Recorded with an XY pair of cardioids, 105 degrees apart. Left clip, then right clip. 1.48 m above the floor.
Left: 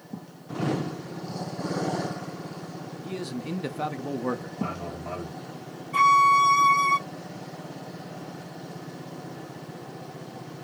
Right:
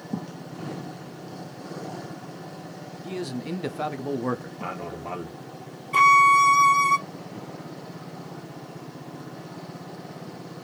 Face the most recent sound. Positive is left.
turn(degrees=-60)